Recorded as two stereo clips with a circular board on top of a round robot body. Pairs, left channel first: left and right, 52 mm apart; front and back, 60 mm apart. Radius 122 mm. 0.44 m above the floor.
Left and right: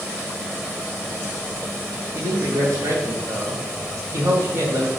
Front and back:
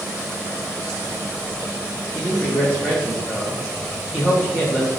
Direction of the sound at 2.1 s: 75° right.